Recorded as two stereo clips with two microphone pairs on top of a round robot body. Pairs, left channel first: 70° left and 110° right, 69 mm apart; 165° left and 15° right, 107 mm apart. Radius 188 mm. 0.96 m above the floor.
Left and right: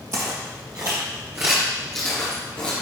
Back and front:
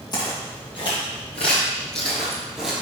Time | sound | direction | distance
0.1 | footsteps | 145° right | 3 m